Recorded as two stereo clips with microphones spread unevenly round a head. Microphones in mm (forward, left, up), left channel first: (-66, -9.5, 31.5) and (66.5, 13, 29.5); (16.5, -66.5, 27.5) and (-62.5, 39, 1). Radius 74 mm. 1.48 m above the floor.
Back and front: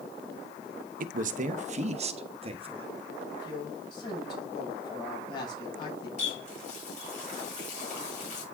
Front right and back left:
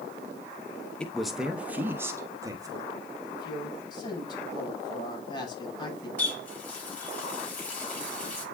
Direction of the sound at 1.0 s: 30° left.